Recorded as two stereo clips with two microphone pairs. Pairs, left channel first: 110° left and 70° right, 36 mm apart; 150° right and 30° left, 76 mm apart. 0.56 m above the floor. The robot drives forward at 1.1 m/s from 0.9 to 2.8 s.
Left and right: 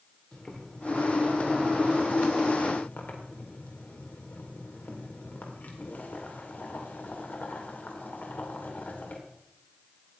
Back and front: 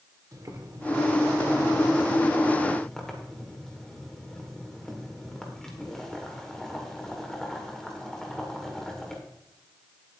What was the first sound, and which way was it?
Boiling, 55° left.